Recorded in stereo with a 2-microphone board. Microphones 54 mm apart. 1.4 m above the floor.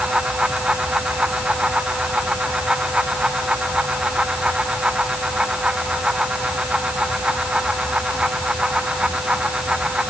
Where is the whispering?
No whispering in this recording.